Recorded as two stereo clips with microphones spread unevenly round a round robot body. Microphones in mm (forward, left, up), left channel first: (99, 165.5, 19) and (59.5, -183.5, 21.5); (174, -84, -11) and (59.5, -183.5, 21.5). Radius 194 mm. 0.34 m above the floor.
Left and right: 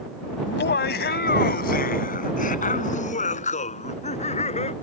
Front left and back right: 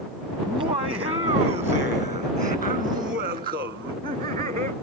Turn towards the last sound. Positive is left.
turn(degrees=160)